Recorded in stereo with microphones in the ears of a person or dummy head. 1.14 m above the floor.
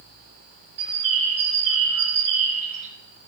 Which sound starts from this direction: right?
A bird, at 0.8 s.